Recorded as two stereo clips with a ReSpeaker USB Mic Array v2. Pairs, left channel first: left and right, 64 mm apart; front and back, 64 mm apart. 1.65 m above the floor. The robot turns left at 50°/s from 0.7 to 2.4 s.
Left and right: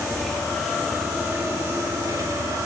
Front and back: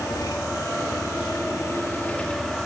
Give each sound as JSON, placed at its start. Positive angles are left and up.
{"t": 0.0, "sound": "an engine running", "azimuth_deg": 5, "distance_m": 3.0}